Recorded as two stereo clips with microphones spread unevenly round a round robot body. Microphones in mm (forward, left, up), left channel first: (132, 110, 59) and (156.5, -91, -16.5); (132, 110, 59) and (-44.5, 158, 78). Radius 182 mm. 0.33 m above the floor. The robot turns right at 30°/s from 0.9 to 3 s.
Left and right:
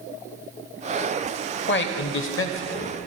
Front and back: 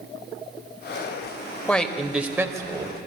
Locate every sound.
1.7 s a man speaking: 65° left, 1.4 m; by 3.0 s 100° left, 1.4 m